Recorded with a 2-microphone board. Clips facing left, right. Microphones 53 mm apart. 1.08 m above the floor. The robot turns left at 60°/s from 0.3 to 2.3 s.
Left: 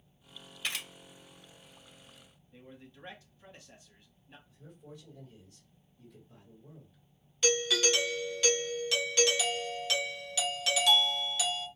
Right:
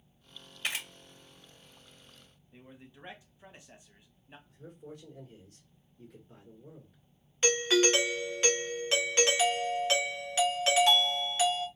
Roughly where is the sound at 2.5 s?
Centre.